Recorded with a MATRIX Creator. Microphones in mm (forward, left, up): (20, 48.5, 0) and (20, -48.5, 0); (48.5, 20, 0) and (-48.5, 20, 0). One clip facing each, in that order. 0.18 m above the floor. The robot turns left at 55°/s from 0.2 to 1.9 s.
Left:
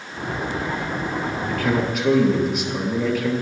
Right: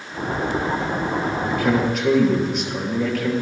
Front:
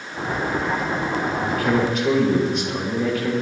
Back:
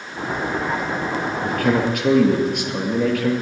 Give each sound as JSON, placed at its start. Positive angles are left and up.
{"t": 1.4, "sound": "a man speaking", "azimuth_deg": -155, "distance_m": 3.0}